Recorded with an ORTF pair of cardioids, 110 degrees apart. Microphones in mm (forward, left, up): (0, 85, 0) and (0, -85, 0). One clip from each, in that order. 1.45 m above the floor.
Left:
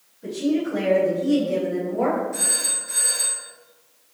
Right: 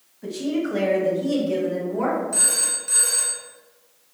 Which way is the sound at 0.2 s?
55° right.